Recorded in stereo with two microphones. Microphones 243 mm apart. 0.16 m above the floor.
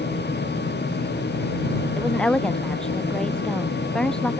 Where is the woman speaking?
5° left (ahead or behind).